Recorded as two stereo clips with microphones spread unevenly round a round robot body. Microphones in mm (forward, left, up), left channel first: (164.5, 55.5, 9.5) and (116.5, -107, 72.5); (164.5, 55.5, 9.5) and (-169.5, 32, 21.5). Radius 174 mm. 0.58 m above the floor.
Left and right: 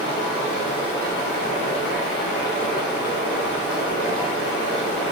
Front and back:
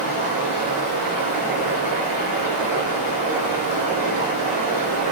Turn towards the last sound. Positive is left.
turn(degrees=75)